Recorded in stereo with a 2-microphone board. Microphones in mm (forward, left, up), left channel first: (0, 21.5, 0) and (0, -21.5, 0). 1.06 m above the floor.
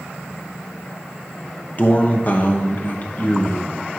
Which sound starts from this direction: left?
A man speaking, at 1.8 s.